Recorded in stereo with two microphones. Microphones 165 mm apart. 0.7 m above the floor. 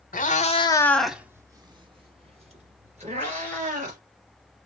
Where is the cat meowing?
60° left (ahead or behind), 0.9 m; by 4.0 s 50° right (ahead or behind), 3 m.